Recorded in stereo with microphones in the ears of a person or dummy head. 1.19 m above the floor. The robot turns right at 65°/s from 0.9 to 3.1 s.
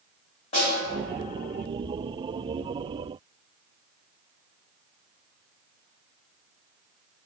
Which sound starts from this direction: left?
A snare drum, at 0.5 s.